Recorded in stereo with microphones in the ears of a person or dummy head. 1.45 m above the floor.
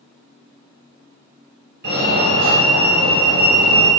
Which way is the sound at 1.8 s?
55° right (ahead or behind).